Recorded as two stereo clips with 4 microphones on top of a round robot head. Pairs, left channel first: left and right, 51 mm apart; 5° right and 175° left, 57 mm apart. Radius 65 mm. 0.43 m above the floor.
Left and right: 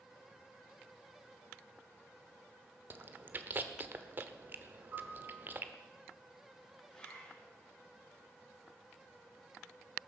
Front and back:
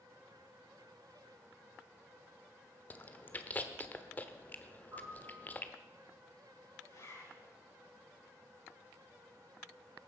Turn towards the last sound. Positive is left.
turn(degrees=10)